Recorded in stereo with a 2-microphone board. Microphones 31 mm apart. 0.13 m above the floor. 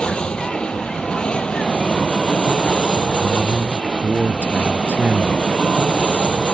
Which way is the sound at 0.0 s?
35° left (ahead or behind).